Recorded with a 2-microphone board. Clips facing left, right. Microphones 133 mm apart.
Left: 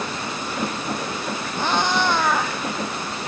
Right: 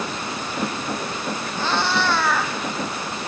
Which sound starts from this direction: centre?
A cat meowing, at 1.6 s.